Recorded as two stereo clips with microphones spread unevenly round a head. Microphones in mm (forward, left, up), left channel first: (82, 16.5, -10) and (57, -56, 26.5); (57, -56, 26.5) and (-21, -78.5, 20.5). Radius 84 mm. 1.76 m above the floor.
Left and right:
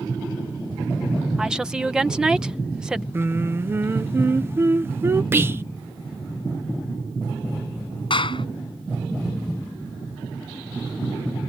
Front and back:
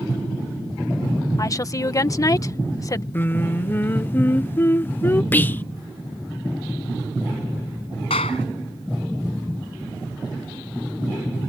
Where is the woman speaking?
30° right.